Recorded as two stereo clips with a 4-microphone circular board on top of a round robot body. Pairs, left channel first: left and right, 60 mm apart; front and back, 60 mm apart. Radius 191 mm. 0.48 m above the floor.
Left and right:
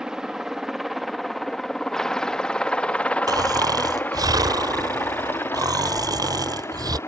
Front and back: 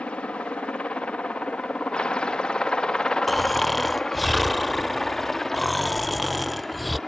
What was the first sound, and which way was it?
A helicopter, 25° right.